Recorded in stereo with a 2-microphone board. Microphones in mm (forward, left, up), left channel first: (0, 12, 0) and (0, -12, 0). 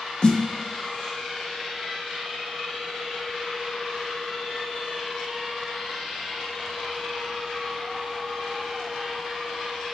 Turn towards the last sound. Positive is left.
turn(degrees=40)  # may be behind; listen again after turning